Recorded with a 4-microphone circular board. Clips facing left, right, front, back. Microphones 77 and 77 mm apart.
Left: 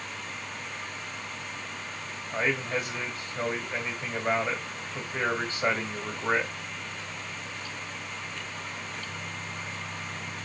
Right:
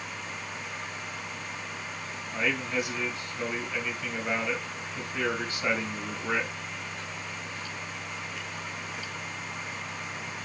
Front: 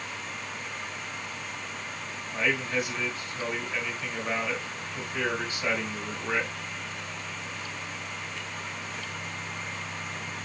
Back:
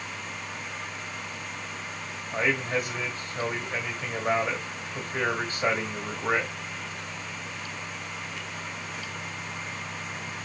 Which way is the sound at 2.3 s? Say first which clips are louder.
Left 1 dB, back 2 dB; 135° left.